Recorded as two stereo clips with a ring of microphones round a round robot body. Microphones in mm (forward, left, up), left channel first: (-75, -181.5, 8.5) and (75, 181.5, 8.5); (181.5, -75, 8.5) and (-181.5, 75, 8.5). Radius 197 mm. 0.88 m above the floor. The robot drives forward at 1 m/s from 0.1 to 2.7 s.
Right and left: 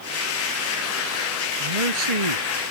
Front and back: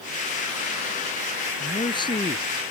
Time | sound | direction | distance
1.6 | a man speaking | 55° left | ?